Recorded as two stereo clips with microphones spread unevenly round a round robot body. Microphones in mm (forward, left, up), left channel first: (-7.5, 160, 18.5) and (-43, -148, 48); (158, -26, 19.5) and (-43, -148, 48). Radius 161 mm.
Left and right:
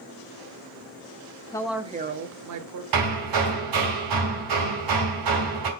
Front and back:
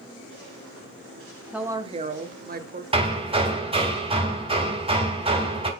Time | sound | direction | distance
1.5 | a woman speaking | 110° left | 0.9 m
2.9 | hammering | 80° right | 2.5 m